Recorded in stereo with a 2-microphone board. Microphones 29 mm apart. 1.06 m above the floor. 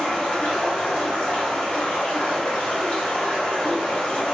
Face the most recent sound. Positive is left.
turn(degrees=60)  # may be behind; listen again after turning